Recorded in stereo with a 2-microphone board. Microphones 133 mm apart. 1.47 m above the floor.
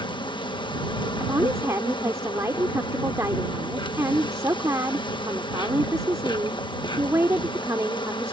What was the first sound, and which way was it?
An insect, 35° left (ahead or behind).